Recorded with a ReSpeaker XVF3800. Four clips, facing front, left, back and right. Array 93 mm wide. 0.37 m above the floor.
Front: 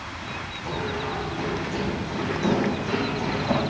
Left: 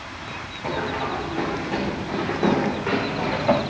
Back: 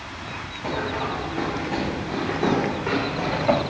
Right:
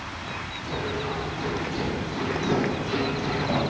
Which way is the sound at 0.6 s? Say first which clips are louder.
Left 5 dB, back 3 dB; 125° left.